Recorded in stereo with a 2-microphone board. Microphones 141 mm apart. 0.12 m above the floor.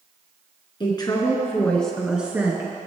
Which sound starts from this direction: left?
A woman speaking, at 0.8 s.